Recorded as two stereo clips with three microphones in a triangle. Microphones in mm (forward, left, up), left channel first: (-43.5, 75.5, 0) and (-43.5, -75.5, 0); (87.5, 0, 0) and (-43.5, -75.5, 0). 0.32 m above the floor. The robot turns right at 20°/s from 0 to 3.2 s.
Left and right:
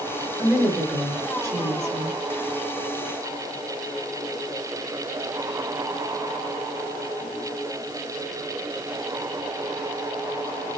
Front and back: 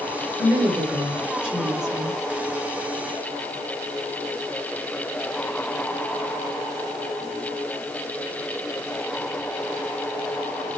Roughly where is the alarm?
I don't hear an alarm.